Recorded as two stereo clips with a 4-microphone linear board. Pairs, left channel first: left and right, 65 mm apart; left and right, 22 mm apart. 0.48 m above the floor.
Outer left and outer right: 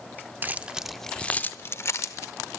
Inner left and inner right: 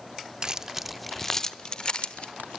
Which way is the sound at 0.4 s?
30° right (ahead or behind).